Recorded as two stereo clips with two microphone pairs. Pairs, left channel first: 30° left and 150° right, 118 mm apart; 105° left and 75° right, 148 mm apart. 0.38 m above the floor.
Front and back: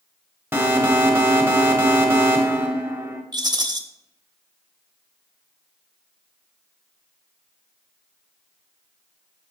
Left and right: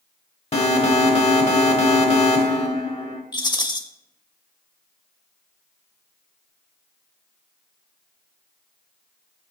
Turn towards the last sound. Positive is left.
turn(degrees=160)